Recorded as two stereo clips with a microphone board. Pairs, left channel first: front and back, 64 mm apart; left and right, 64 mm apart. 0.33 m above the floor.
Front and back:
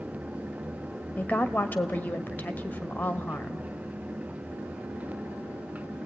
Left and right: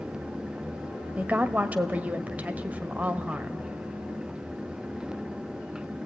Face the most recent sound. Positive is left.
turn(degrees=-40)